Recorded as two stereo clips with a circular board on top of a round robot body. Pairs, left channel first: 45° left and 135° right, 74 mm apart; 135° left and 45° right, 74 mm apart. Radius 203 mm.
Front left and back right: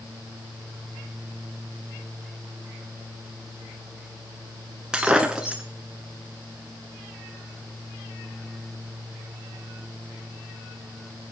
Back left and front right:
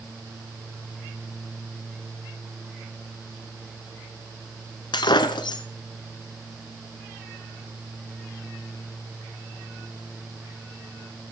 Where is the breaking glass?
145° left, 0.9 m.